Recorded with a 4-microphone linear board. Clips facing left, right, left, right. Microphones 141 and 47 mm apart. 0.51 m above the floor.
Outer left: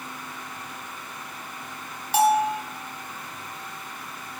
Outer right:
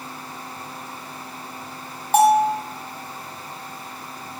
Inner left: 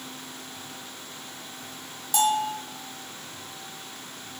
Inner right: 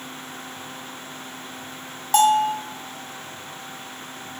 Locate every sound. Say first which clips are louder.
2.1 s a bell: outer right 5 dB, inner right 7 dB; 50° right (ahead or behind), 0.9 m